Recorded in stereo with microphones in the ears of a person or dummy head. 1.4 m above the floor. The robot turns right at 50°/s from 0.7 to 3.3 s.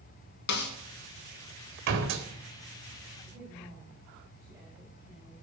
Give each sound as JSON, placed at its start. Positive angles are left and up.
{"t": 0.5, "sound": "a snare drum", "side_deg": 60, "distance_m": 1.9}
{"t": 1.9, "sound": "a door slam", "side_deg": -60, "distance_m": 2.0}
{"t": 3.2, "sound": "a woman speaking", "side_deg": -10, "distance_m": 7.0}